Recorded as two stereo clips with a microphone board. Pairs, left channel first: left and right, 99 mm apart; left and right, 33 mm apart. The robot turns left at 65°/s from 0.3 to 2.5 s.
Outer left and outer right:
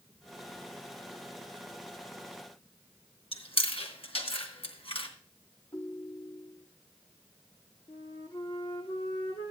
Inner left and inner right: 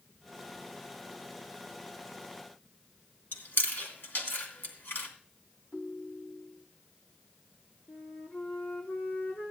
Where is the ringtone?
70° left (ahead or behind), 1.6 m.